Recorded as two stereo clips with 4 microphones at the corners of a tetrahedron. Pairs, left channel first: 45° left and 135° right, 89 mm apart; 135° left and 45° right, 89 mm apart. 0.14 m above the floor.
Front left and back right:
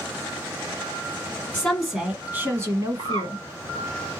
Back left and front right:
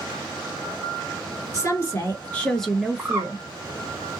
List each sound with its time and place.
1.5 s a woman speaking: 120° left, 1.4 m; by 3.4 s 115° right, 1.6 m
3.0 s a bird: 110° right, 0.9 m